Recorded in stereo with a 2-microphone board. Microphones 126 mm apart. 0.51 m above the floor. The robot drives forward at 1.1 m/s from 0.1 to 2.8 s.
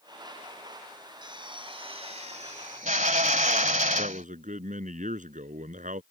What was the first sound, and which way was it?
A drill, 35° right (ahead or behind).